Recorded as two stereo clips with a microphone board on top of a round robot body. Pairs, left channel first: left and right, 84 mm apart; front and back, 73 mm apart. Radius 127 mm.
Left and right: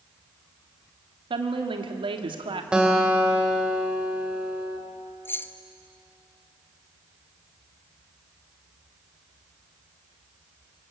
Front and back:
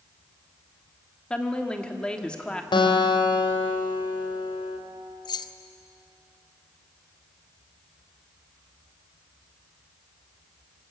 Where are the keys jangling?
25° left, 0.8 m.